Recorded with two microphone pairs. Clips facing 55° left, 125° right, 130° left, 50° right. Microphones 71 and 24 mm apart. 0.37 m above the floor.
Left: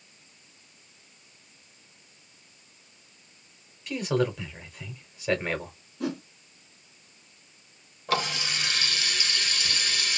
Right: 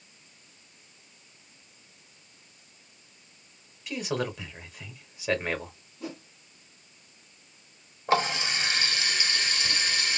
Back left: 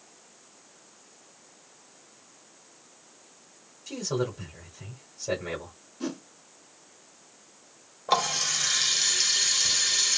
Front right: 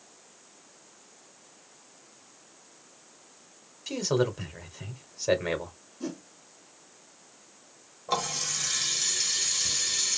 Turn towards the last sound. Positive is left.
turn(degrees=180)